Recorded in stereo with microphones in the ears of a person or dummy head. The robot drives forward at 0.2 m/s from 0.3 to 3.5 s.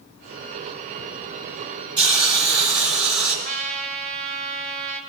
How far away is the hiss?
About 1.8 m.